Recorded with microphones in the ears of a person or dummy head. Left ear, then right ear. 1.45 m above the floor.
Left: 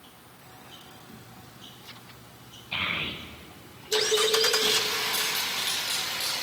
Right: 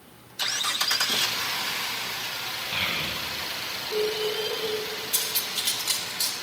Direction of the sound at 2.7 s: Centre (ahead or behind).